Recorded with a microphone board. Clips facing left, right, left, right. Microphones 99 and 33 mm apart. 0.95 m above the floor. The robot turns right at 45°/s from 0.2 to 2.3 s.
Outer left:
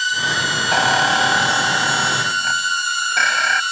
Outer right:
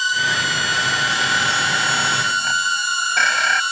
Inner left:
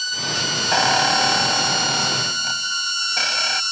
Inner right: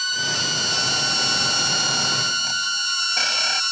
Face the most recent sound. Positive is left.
turn(degrees=180)